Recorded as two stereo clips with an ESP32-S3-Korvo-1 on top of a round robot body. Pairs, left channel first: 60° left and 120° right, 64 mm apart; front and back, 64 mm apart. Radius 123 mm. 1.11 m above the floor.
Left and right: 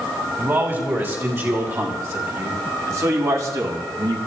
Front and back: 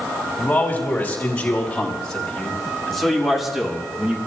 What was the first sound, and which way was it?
A man speaking, 65° right.